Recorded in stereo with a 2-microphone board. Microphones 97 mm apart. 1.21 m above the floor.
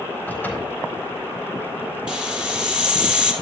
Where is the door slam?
20° left (ahead or behind), 4 m.